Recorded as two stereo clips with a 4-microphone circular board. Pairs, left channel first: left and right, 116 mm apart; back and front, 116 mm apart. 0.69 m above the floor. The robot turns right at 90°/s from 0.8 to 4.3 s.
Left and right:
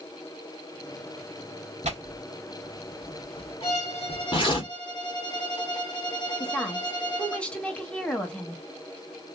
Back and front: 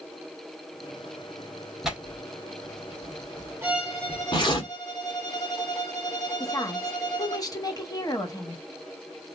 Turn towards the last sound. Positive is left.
turn(degrees=160)